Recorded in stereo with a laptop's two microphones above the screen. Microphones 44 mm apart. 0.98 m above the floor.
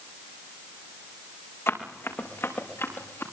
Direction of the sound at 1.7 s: 75° left (ahead or behind).